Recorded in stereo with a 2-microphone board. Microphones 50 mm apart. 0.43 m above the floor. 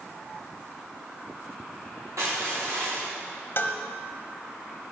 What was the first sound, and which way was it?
Crushing, 85° right.